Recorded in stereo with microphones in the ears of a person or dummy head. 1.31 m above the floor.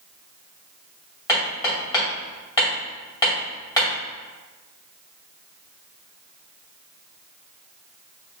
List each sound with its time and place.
1.3 s hammering: 15° left (ahead or behind), 1.8 m